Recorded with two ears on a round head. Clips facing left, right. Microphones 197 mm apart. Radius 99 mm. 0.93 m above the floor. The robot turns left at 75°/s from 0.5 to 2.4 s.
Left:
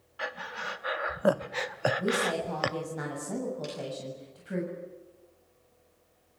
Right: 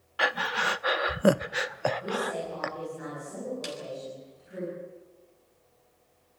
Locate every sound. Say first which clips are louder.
0.2 s breathing: right 8 dB; 70° right (ahead or behind), 0.6 m; by 2.8 s 45° left (ahead or behind), 0.6 m
2.0 s a woman speaking: left 3 dB; 125° left, 7 m; by 4.6 s 90° left, 7 m
3.6 s a snare drum: right 1 dB; 75° right (ahead or behind), 9.5 m